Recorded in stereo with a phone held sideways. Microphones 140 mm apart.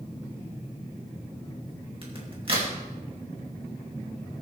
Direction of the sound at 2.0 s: 40° right (ahead or behind).